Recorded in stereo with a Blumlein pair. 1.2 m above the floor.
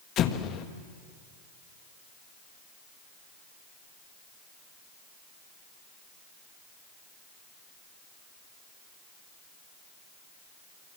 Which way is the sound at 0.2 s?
30° left.